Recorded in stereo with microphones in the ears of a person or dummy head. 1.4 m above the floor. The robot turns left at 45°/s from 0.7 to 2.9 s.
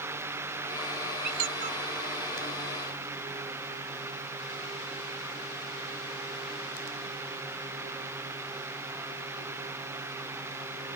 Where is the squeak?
60° right (ahead or behind); by 1.8 s 35° right (ahead or behind).